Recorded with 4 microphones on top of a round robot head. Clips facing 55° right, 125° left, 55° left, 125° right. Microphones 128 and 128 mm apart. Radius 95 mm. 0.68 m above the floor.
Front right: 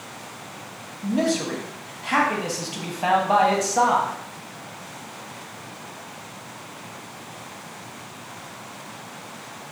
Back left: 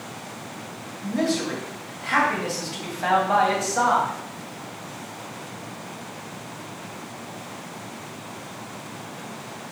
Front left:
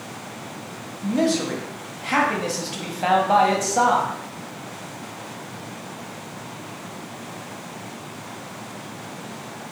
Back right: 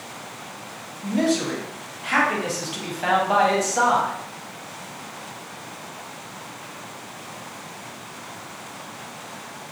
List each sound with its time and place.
1.0 s a man speaking: 15° left, 0.8 m